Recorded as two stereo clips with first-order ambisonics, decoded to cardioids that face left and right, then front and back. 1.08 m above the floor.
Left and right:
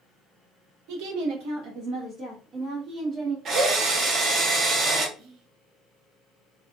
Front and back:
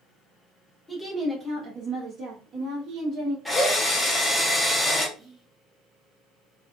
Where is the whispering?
110° right, 0.9 m.